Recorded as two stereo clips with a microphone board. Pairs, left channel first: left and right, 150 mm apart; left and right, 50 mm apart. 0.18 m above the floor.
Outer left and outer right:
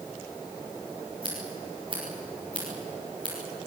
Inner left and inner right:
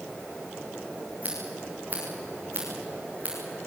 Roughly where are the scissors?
Right.